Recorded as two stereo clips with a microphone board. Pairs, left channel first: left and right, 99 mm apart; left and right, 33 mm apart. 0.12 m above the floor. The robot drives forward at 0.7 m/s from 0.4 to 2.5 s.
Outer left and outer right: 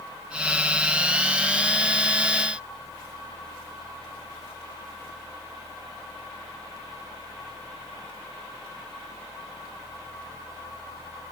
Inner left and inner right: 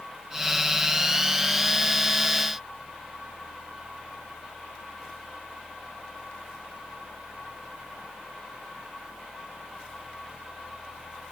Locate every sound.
Only background noise.